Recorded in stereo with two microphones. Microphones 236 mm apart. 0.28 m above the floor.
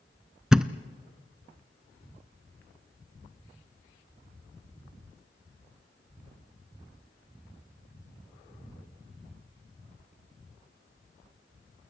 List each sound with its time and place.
0.5 s a thud: 5° right (ahead or behind), 0.7 m